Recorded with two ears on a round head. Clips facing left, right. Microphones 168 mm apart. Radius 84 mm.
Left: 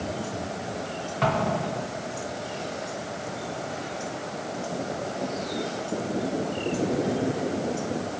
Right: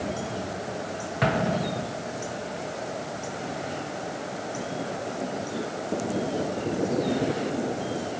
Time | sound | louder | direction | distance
1.2 | an explosion | even | 20° right (ahead or behind) | 1.1 m